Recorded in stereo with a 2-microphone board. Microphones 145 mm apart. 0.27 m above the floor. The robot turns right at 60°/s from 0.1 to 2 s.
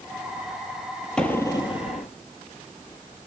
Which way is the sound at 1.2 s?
5° left.